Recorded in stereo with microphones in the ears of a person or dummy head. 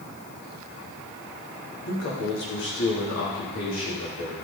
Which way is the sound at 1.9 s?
75° left (ahead or behind).